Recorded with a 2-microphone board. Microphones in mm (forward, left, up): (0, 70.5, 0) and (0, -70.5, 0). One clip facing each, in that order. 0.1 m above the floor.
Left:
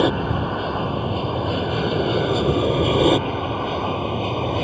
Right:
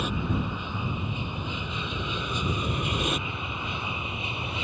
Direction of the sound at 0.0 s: 65° left (ahead or behind).